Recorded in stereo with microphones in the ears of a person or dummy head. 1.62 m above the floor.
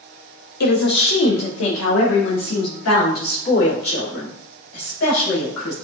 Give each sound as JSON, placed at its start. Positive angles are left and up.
{"t": 0.6, "sound": "a woman speaking", "side_deg": 55, "distance_m": 0.7}